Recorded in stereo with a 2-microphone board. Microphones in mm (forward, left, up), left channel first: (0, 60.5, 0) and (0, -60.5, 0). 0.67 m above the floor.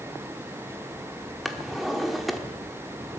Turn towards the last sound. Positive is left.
turn(degrees=0)  # may be behind; listen again after turning